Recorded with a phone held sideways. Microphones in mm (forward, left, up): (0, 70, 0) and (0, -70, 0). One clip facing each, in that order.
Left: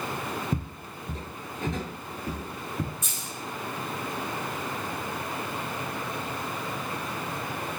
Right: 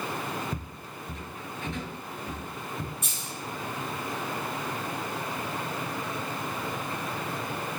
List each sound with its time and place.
0.5 s footsteps: 30° left (ahead or behind), 1.1 m; by 2.9 s 35° left (ahead or behind), 1.5 m
3.0 s a dropped coin: 65° right (ahead or behind), 3 m